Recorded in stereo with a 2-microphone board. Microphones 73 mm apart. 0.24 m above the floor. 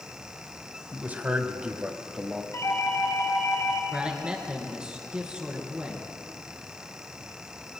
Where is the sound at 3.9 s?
15° right (ahead or behind), 3 m.